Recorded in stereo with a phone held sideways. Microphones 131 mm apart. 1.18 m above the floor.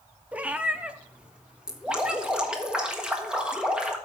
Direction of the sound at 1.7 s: 5° right (ahead or behind).